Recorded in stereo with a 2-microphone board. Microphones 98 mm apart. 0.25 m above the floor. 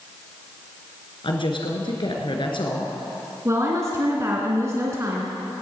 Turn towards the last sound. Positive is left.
turn(degrees=-30)  # may be behind; listen again after turning